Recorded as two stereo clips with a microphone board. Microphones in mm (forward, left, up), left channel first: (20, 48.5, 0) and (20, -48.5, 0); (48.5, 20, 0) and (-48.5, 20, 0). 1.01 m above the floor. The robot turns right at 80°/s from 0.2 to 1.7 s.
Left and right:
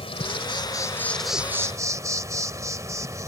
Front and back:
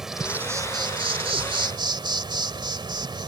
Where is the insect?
95° left; by 3.3 s 145° right.